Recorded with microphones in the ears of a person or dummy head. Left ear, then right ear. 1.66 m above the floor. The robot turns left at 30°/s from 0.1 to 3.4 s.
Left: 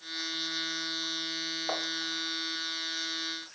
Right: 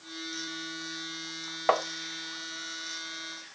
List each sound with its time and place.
1.7 s tapping: 60° right (ahead or behind), 0.6 m; by 1.9 s 65° right (ahead or behind), 0.6 m